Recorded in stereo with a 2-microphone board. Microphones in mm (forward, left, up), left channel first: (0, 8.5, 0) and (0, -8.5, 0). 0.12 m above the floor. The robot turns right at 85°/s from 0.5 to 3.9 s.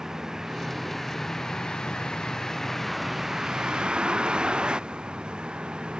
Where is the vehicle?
30° right (ahead or behind); by 6.0 s 85° right.